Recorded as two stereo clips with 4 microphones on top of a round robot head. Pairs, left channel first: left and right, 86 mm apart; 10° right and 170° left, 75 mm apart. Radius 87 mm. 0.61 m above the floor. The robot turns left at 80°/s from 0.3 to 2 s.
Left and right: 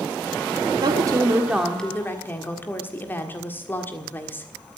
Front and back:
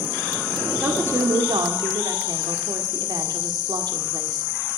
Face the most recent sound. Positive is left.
turn(degrees=155)